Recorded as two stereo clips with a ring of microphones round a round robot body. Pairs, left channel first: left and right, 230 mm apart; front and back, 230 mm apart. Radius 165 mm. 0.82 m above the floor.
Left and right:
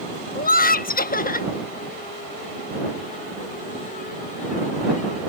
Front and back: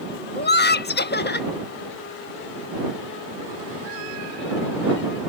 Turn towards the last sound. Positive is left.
turn(degrees=40)